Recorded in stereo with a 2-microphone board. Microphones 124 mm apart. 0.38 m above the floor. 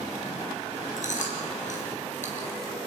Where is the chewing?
80° left, 4.5 m.